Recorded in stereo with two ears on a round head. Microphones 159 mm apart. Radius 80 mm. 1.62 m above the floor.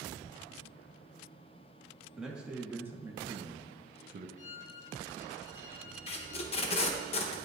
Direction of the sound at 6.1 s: 35° left (ahead or behind).